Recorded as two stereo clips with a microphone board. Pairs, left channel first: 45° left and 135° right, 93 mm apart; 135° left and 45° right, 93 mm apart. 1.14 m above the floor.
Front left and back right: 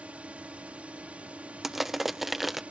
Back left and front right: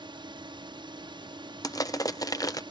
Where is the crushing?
140° left.